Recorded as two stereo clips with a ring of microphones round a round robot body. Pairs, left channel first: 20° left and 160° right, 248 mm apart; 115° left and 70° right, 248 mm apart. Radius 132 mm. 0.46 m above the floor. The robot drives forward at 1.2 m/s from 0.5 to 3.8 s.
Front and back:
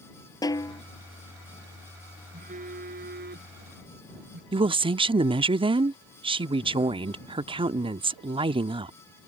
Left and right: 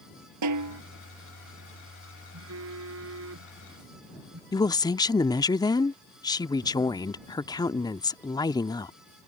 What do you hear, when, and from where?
0.4 s a snare drum: 55° right
2.3 s a phone buzzing: 95° right; by 4.4 s 105° right
4.5 s a woman speaking: 165° left